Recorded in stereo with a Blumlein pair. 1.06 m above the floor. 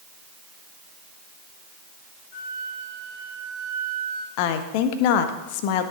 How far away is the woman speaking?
About 1.3 m.